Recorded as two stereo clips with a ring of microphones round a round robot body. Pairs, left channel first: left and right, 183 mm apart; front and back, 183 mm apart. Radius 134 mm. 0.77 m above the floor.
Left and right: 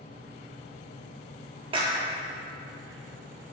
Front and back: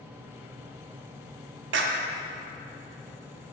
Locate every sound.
1.7 s a clap: 160° right, 1.0 m